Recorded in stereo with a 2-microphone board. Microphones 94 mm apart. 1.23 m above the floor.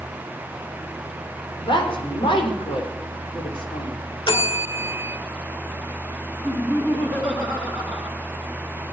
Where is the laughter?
25° left (ahead or behind), 3.5 m.